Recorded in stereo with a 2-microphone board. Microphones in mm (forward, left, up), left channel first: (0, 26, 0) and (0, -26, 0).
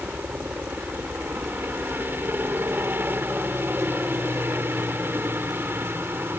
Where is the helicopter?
35° right (ahead or behind); by 6.4 s 40° right (ahead or behind).